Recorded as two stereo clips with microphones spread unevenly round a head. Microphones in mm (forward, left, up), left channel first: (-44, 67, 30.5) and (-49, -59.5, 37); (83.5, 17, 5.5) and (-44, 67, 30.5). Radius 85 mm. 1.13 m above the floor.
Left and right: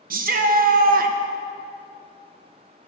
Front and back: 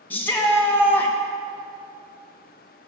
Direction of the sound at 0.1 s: 100° right.